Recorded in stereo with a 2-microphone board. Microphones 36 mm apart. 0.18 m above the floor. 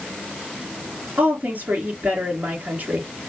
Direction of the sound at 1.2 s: 60° right (ahead or behind).